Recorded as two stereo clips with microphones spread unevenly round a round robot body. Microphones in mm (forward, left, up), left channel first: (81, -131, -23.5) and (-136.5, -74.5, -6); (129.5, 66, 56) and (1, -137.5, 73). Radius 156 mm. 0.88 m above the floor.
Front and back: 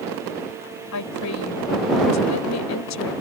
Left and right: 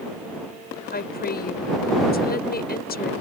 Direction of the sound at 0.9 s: 5° left.